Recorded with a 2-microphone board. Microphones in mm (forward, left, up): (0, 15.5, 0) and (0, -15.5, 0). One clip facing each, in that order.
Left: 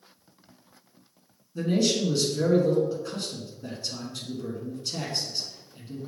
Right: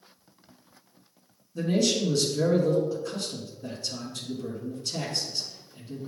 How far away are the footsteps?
I don't hear footsteps.